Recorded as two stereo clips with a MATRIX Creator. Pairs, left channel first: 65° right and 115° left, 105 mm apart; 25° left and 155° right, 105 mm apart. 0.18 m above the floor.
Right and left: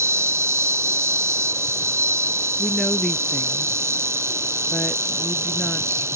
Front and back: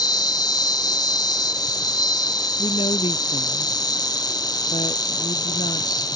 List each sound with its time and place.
0.0 s an insect: 55° left
2.6 s a woman speaking: 20° left